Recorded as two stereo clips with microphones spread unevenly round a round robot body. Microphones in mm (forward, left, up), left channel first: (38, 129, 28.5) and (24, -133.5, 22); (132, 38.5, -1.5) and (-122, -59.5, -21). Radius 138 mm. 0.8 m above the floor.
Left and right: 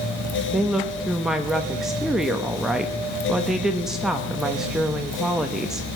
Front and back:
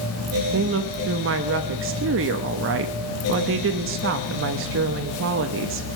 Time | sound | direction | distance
0.5 | a woman speaking | straight behind | 0.9 m